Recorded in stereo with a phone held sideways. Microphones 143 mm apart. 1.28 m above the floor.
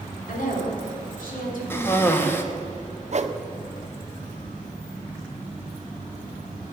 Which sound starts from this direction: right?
A whoosh, at 3.1 s.